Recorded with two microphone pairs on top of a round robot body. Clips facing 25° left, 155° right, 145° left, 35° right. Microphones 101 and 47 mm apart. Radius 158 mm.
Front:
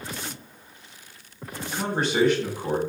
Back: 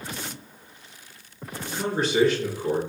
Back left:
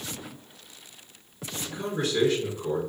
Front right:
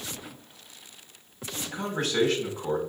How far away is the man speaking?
About 1.6 m.